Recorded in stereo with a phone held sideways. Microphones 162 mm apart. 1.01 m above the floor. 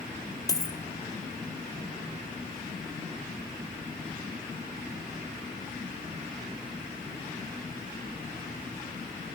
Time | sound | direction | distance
0.5 | a dropped coin | 20° left (ahead or behind) | 1.9 m